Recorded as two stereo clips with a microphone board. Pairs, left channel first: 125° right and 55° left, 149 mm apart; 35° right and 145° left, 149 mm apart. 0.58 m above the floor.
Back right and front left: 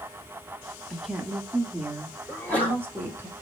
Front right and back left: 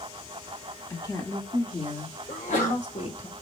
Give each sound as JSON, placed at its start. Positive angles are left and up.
{"t": 0.9, "sound": "a woman speaking", "azimuth_deg": -30, "distance_m": 1.1}
{"t": 2.3, "sound": "a sneeze", "azimuth_deg": -45, "distance_m": 3.0}